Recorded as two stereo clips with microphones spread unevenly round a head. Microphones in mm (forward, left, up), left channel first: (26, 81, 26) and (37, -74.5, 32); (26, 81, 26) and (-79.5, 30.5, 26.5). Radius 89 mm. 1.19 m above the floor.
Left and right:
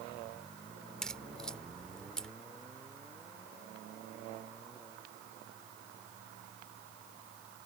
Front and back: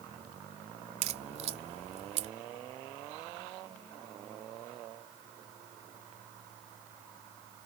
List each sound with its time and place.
1.0 s a crack: straight behind